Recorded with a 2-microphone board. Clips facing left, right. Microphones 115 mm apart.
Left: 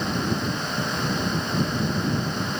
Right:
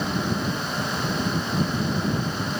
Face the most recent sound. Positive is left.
No sound to turn to.